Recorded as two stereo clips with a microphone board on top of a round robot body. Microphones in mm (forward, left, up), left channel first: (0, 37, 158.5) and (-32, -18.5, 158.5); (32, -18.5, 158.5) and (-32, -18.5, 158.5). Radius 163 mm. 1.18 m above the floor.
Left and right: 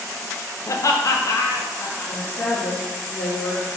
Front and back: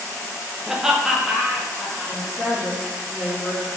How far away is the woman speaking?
About 2 m.